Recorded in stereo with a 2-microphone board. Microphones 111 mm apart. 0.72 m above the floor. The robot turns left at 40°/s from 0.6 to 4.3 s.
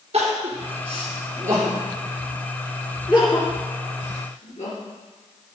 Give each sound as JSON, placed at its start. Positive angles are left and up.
{"t": 0.1, "sound": "crying", "side_deg": -60, "distance_m": 4.5}